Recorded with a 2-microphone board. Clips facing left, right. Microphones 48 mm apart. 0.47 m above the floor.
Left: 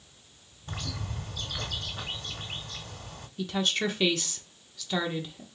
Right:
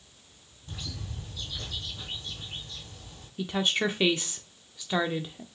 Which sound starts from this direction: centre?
A woman speaking, at 3.4 s.